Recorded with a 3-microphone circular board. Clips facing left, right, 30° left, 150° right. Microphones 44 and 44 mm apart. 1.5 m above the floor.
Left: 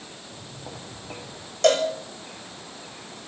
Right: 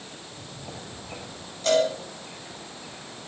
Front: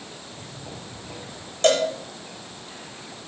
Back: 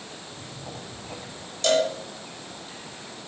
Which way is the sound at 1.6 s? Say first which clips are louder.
Left 2 dB, front 2 dB; 75° left.